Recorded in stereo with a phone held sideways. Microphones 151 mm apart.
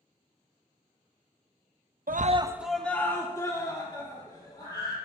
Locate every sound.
2.1 s a scream: 75° right (ahead or behind), 0.5 m; by 5.0 s 30° left (ahead or behind), 4 m